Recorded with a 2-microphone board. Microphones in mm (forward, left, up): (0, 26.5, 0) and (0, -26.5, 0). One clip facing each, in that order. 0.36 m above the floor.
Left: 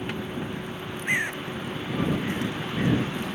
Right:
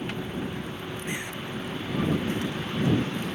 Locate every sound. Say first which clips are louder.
0.0 s a vehicle: even; 10° left (ahead or behind)
1.1 s a bird: left 10 dB; 50° left (ahead or behind)